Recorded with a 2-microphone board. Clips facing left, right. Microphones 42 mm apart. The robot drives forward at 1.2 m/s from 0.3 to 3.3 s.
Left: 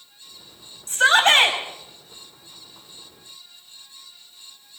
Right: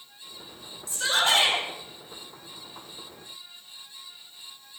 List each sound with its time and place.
0.9 s a shout: 55° left (ahead or behind), 6.5 m; by 1.6 s 50° left (ahead or behind), 7 m